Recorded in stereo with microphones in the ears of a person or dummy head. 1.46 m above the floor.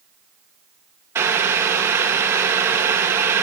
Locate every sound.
1.1 s boiling: 10° right (ahead or behind), 0.8 m